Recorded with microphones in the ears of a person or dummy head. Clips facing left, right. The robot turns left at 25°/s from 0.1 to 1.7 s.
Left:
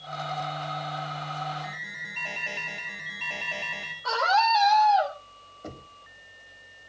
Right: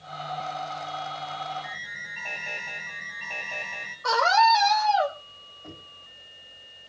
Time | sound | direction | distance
1.6 | an alarm | 5° left (ahead or behind) | 9 m
4.0 | a scream | 65° right (ahead or behind) | 6 m
5.6 | knocking | 50° left (ahead or behind) | 2.5 m